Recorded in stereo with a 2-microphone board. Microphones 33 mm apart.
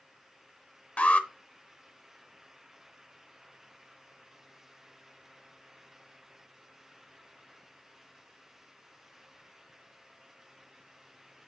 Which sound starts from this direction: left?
An alarm, at 1.0 s.